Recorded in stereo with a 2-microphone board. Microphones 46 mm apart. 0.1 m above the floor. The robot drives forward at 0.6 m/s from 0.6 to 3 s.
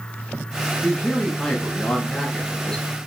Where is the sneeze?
I don't hear a sneeze.